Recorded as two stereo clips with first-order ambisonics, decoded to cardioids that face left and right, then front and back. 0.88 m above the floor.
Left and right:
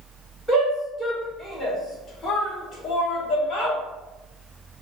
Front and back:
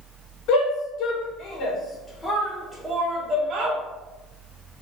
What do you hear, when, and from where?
0.5 s a shout: 5° left, 1.7 m; by 3.8 s 135° left, 1.5 m